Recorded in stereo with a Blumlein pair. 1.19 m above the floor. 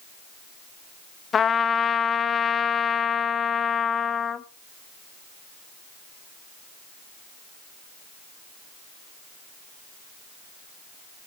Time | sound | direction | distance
1.3 | a trumpet | 20° left | 0.8 m